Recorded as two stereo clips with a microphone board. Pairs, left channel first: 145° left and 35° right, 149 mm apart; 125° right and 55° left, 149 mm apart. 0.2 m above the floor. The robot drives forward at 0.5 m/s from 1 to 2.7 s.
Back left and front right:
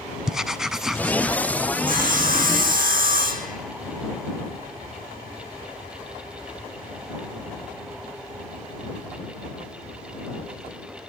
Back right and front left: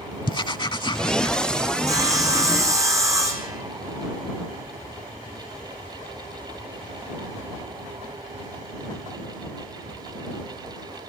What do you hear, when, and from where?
0.3 s writing: 120° right, 0.6 m; by 1.4 s 140° right, 0.7 m
1.9 s sawing: 10° right, 4.5 m; by 3.6 s 15° right, 4 m